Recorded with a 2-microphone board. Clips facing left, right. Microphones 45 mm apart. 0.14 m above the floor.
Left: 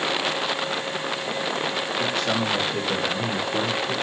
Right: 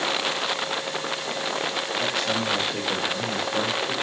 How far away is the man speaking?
About 1.6 m.